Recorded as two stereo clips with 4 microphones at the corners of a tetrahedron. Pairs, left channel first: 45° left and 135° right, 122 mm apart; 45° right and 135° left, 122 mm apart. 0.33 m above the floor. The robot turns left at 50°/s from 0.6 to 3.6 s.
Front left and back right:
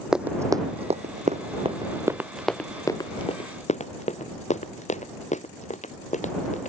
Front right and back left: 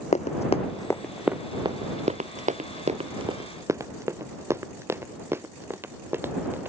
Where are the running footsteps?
50° right; by 6.7 s 60° left.